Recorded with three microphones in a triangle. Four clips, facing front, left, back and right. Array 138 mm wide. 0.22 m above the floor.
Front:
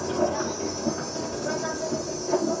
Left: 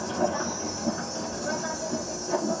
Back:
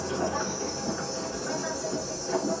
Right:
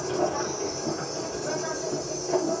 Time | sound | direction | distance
0.0 | an insect | 10° left | 7 m